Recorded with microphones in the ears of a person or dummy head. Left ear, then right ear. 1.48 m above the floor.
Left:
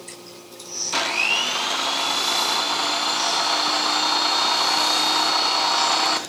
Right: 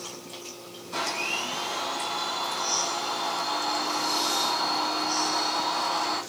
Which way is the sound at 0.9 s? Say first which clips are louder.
Left 8 dB; 55° left (ahead or behind).